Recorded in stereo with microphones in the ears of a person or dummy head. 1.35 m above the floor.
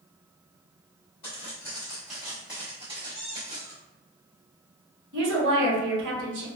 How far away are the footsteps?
About 1.4 m.